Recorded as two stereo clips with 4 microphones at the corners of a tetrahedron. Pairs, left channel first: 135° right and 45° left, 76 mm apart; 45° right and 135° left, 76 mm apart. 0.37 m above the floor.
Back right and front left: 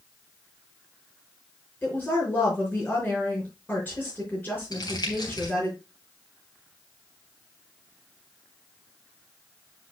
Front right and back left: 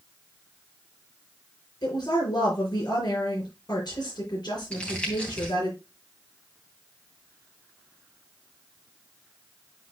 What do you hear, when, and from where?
1.8 s a woman speaking: 65° right, 5 m
4.7 s crumpling: 120° right, 3 m